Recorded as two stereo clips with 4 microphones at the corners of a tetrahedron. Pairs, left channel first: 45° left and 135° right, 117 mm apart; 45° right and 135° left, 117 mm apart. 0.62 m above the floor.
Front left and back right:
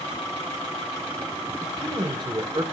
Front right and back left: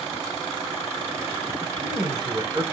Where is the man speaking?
175° left, 3 m; by 2.6 s 170° right, 1.9 m.